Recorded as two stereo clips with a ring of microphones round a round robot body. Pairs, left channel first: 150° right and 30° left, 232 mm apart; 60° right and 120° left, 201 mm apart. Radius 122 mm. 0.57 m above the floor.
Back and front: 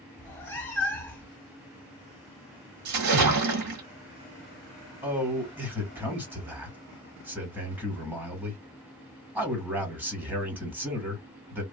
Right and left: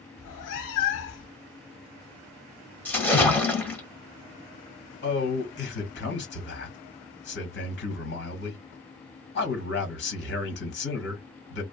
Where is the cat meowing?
70° right, 0.7 m.